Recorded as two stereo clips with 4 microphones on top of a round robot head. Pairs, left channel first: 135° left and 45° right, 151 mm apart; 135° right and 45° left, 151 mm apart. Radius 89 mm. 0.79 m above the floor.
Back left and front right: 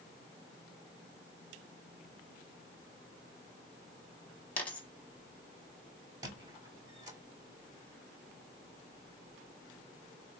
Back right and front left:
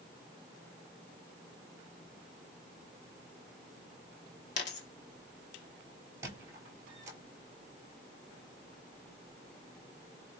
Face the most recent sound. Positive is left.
turn(degrees=-5)